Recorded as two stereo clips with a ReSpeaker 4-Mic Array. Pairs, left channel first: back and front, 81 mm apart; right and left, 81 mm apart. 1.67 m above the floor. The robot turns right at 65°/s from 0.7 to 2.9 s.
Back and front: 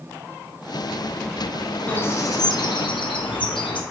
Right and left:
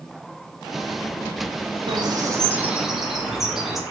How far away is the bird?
About 0.6 m.